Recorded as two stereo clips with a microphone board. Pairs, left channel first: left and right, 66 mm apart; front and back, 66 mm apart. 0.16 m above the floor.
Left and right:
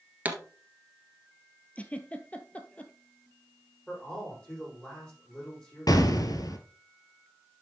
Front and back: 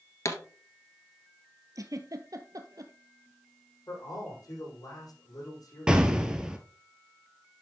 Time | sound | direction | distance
0.2 | a pop | 25° right | 1.4 m
1.8 | a giggle | 160° left | 0.9 m
3.9 | a man speaking | 15° left | 7 m
5.9 | an explosion | 100° left | 1.0 m